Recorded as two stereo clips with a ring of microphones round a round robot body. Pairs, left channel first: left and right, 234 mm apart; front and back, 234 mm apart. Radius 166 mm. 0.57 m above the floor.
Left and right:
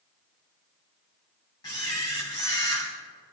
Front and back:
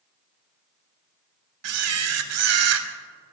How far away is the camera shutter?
About 1.0 m.